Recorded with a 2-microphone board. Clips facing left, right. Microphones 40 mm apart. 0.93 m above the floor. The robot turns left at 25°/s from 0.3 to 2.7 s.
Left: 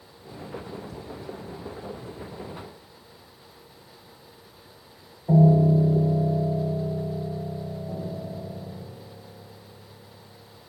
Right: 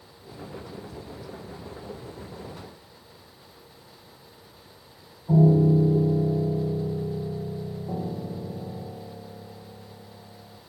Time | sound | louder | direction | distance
5.3 | a piano | even | 60° left (ahead or behind) | 6 m
7.9 | a piano | right 2 dB | 30° right (ahead or behind) | 1.3 m